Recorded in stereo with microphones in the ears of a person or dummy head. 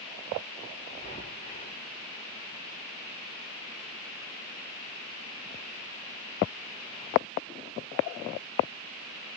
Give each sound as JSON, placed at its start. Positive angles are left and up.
{"t": 0.9, "sound": "breathing", "side_deg": 35, "distance_m": 4.0}